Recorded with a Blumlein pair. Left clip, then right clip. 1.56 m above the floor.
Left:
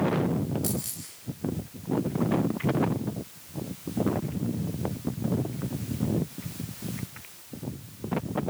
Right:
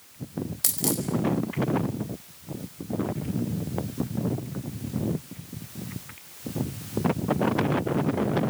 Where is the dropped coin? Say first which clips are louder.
Right 6 dB; 60° right, 4.5 m.